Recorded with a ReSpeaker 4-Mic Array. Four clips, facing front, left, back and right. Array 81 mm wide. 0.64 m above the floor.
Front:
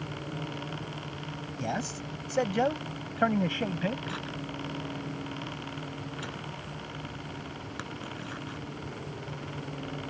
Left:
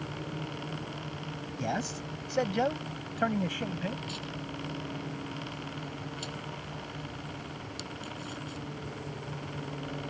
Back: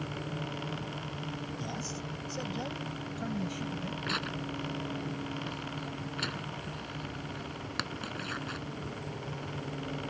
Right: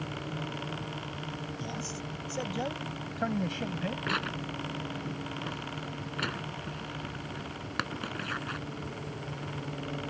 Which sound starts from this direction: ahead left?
A man speaking, at 1.6 s.